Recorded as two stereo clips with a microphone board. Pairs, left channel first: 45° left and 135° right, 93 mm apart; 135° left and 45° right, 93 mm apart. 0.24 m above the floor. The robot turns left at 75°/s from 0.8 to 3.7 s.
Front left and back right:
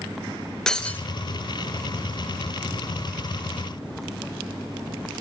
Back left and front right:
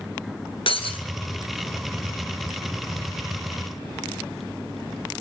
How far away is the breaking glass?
About 1.5 m.